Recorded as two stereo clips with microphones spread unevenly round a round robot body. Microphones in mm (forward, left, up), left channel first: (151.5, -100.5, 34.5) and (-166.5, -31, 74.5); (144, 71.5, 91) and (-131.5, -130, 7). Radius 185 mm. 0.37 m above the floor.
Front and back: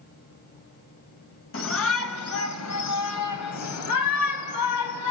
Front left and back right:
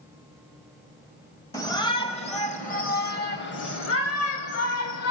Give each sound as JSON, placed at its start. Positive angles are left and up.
{"t": 1.5, "sound": "a shout", "azimuth_deg": -50, "distance_m": 2.5}